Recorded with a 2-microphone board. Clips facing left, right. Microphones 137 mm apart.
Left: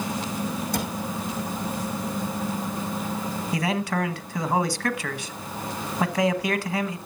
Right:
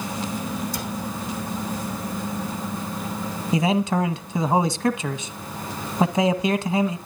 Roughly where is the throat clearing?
I don't hear throat clearing.